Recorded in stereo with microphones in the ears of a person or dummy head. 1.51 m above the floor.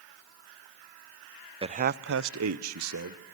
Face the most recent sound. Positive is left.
turn(degrees=-80)